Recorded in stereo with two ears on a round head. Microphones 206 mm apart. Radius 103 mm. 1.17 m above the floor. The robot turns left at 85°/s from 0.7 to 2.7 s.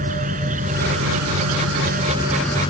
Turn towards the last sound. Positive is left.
turn(degrees=155)